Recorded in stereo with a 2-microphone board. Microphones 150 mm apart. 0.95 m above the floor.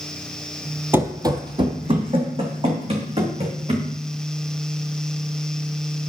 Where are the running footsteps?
15° right (ahead or behind), 1.0 m; by 3.9 s 40° right (ahead or behind), 4.5 m.